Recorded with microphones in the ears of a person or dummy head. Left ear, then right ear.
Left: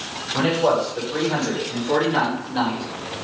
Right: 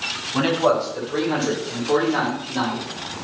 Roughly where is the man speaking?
Right.